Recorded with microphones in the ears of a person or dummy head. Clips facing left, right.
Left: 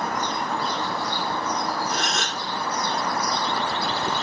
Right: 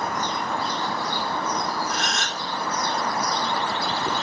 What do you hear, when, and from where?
1.9 s a gasp: 55° left (ahead or behind), 3.5 m